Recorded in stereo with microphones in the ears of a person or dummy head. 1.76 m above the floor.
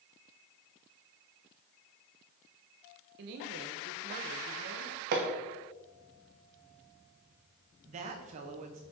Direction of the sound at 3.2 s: 60° right (ahead or behind).